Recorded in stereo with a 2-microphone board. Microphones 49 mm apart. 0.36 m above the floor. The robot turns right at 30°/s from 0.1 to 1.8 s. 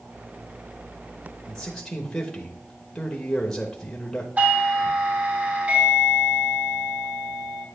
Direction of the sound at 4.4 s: 35° right (ahead or behind).